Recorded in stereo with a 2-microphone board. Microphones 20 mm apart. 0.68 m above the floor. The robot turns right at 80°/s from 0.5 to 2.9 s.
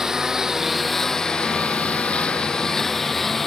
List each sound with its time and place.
0.0 s a lawn mower: 25° right; by 3.5 s 165° left